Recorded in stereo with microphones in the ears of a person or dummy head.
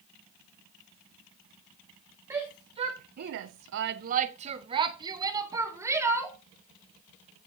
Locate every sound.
2.3 s a shout: 25° right (ahead or behind), 1.1 m; by 6.4 s 15° right (ahead or behind), 2.5 m